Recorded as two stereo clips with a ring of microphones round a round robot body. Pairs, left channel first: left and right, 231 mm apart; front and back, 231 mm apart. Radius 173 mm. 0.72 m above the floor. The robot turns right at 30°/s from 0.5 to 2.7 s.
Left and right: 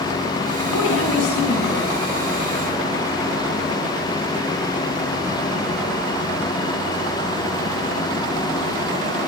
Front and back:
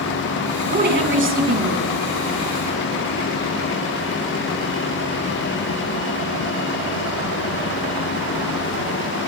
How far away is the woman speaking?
About 9 m.